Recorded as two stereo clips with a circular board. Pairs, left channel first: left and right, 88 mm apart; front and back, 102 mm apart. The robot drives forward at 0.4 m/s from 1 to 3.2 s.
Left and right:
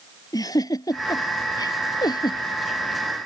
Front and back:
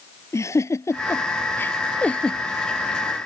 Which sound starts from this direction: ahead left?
A giggle, at 0.3 s.